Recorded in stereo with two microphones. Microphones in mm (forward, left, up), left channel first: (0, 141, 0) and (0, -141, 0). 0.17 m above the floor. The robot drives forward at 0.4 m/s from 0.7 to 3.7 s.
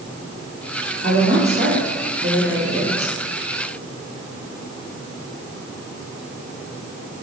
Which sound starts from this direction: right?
A woman speaking, at 1.0 s.